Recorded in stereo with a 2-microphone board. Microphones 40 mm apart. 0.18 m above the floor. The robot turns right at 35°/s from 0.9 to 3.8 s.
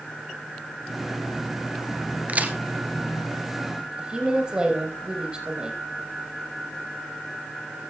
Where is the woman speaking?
25° right (ahead or behind), 5 m.